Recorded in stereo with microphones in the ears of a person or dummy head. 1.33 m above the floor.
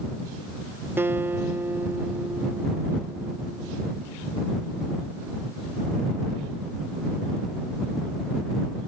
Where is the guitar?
10° right (ahead or behind).